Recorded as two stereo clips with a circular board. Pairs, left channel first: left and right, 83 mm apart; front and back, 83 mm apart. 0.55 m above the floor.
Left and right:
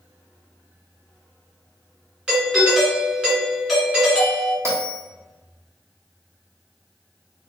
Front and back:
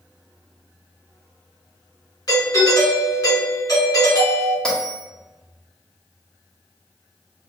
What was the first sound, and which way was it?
A doorbell, 10° right.